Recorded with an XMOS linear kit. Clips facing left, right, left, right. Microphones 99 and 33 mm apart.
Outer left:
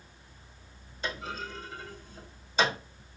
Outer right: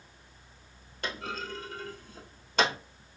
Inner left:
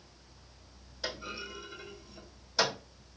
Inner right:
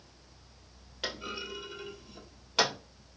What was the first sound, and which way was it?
A clunk, 70° right (ahead or behind).